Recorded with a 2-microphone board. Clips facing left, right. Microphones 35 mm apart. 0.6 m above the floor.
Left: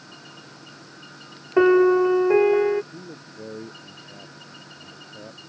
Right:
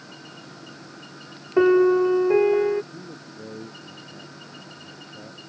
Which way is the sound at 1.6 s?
15° left (ahead or behind).